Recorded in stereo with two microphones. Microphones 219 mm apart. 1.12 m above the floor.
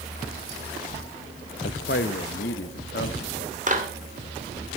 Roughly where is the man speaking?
Left.